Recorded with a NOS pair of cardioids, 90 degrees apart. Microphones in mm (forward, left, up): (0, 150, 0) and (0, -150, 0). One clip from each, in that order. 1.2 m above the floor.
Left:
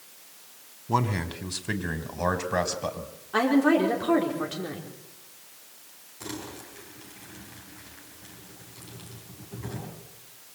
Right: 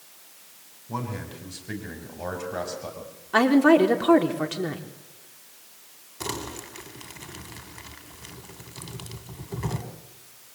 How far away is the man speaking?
About 3.5 m.